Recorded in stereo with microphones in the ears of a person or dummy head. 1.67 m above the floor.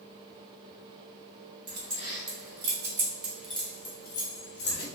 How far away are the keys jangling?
About 1.5 m.